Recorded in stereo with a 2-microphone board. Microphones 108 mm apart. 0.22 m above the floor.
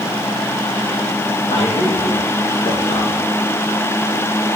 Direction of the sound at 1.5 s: 65° left (ahead or behind).